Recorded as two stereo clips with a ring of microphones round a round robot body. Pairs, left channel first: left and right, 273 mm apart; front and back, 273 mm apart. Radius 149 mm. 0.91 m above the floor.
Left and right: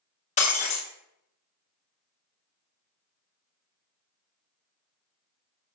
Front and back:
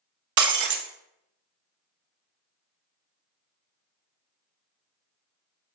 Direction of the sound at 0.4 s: 160° left.